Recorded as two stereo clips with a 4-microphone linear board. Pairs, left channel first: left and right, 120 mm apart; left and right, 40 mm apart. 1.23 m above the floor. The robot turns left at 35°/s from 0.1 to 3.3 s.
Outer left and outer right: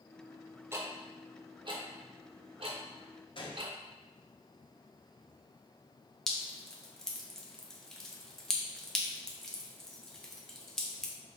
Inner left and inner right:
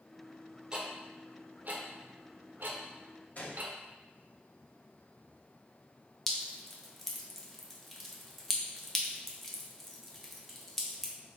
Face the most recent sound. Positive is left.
turn(degrees=5)  # may be behind; listen again after turning